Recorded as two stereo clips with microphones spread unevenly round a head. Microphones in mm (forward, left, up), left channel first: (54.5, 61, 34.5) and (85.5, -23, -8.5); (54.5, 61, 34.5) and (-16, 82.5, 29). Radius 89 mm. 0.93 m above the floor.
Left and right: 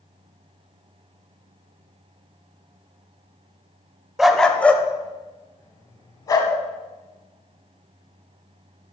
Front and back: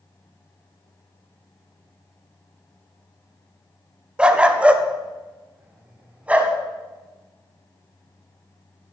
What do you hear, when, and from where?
4.2 s a dog barking: 90° left, 0.7 m